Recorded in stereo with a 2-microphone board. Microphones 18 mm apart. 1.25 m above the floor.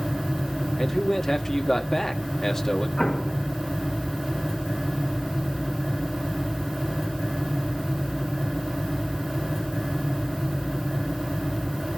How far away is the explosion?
About 1.1 m.